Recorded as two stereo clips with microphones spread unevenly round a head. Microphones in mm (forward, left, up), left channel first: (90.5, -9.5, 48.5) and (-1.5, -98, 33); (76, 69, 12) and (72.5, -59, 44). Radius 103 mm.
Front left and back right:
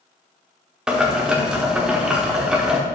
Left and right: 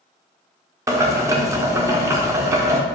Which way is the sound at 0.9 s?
50° right.